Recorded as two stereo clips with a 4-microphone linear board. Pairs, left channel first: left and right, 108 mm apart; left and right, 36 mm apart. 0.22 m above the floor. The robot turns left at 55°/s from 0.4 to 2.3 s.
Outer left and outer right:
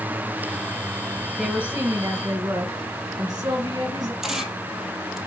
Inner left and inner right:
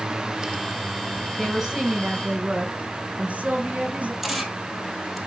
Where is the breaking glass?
I don't hear breaking glass.